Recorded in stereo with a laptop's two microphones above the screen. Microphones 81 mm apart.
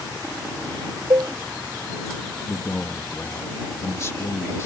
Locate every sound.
1.1 s a cowbell: 60° right (ahead or behind)
2.5 s a man speaking: 35° left (ahead or behind)